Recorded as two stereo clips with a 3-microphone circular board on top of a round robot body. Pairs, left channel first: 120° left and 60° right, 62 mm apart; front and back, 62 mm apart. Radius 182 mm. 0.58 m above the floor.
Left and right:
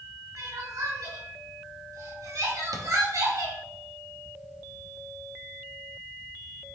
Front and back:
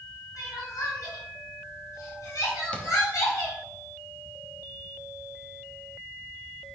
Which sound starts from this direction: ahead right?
Crying, at 0.4 s.